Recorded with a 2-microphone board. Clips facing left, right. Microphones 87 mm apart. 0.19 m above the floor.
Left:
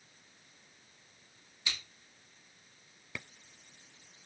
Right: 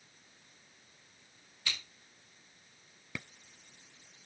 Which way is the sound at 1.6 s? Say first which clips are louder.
Even; 15° left (ahead or behind).